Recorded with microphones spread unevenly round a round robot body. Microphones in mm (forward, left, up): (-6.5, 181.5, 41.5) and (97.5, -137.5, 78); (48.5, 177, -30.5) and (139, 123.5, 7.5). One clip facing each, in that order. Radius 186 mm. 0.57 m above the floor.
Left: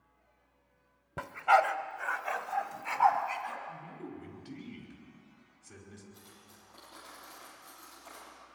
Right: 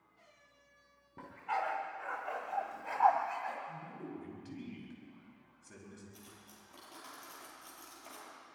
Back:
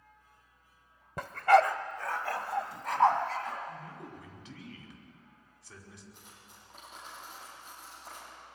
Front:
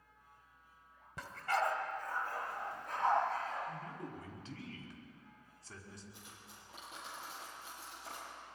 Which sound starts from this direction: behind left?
A dog barking, at 1.2 s.